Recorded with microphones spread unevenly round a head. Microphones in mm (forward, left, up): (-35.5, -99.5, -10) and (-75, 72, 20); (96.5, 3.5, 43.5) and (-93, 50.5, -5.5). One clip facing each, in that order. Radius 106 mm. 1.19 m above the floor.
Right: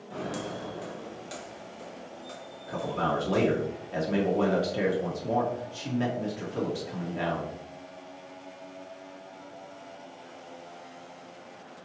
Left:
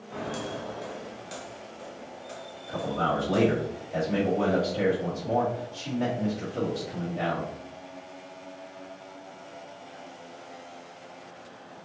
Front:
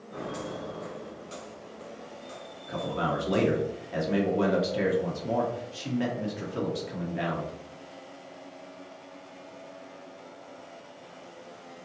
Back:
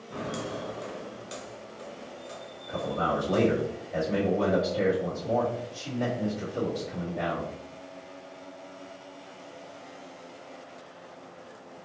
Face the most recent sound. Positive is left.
turn(degrees=-50)